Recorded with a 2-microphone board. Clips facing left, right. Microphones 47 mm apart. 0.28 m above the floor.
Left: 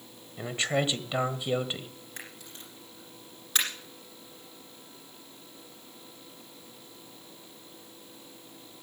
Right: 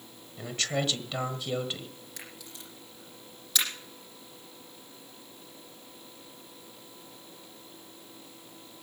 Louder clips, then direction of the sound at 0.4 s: Left 3 dB; 20° left (ahead or behind).